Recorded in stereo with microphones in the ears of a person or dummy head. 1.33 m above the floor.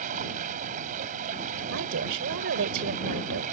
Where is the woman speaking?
70° right (ahead or behind).